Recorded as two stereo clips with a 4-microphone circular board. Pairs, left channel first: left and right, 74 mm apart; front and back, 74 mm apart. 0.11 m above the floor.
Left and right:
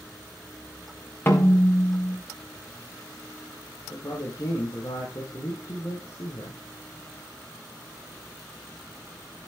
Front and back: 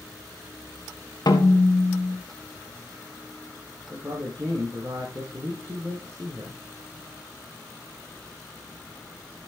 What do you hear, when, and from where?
1.3 s a snare drum: 30° left, 3 m
3.9 s a man speaking: 135° left, 5 m